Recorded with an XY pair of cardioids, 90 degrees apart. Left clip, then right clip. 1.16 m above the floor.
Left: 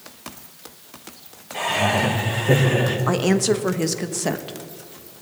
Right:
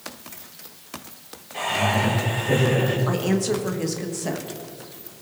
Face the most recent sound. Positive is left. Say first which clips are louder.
# left 4 dB
turn(degrees=50)